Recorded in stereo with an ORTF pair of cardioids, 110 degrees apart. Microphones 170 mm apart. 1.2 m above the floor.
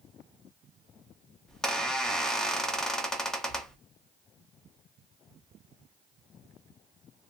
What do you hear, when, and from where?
1.5 s a squeak: 5° left, 0.6 m